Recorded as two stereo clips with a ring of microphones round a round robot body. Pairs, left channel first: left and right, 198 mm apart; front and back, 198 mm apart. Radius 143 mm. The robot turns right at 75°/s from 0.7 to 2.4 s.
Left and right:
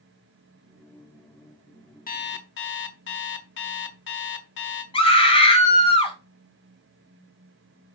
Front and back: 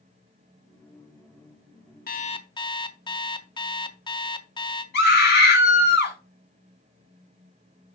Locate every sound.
2.1 s an alarm clock: 40° left, 1.2 m; by 4.8 s 70° left, 1.2 m
4.9 s a scream: 25° left, 5 m